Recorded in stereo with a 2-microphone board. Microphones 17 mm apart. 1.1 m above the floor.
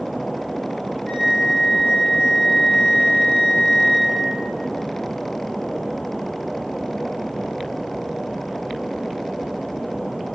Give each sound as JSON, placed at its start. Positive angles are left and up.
{"t": 1.1, "sound": "a flute", "side_deg": 65, "distance_m": 1.1}